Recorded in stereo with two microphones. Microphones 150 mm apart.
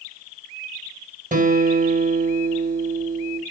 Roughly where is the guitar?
Right.